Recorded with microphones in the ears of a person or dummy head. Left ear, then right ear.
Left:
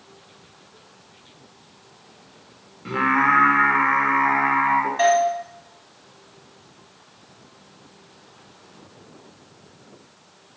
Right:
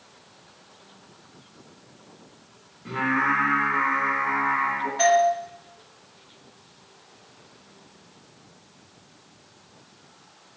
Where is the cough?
No cough in this recording.